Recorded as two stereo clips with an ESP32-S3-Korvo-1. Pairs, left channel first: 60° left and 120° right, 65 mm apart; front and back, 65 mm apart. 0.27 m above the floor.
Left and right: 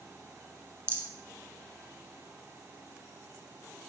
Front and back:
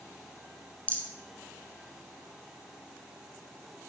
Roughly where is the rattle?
Ahead right.